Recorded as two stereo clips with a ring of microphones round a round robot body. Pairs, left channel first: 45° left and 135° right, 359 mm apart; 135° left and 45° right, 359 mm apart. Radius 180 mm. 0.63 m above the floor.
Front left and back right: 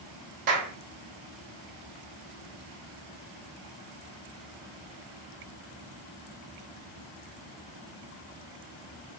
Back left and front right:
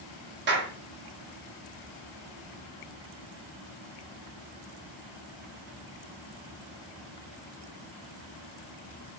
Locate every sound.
0.5 s a clap: 105° right, 0.9 m